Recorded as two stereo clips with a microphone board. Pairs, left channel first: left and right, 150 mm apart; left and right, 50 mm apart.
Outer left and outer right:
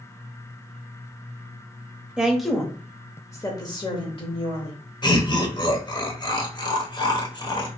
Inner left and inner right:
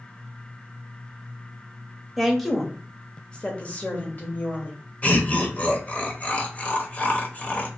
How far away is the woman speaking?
About 1.0 m.